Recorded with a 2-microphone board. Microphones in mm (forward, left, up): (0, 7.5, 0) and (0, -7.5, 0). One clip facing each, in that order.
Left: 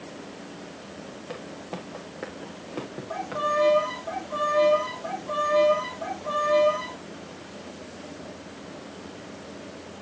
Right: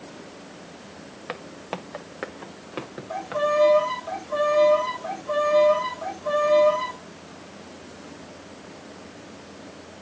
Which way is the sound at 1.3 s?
70° right (ahead or behind).